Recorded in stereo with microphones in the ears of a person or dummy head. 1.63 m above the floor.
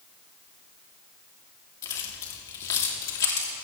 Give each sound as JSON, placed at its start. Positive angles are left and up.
{"t": 1.8, "sound": "keys jangling", "side_deg": 20, "distance_m": 2.5}